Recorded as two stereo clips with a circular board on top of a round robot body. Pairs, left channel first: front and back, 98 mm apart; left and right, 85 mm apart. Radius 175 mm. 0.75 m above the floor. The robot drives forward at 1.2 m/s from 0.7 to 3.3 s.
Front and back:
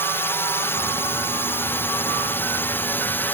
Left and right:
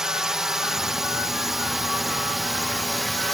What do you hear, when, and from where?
0.0 s a drone: 15° right; by 3.3 s 5° left